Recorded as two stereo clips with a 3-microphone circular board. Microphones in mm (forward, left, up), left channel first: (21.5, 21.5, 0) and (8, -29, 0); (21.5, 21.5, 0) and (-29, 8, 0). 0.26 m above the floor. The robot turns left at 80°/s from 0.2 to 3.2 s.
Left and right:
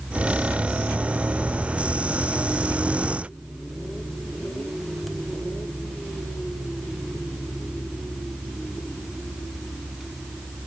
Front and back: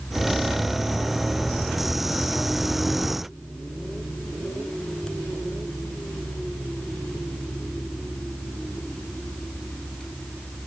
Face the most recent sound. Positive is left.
No sound to turn to.